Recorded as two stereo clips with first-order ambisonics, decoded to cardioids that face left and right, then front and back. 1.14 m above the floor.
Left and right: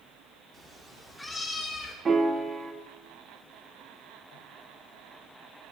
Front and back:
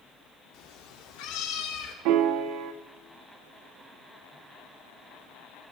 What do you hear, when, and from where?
0.5 s a cat meowing: 25° right, 1.3 m; by 1.9 s 15° left, 1.7 m
2.0 s a piano: 160° right, 0.7 m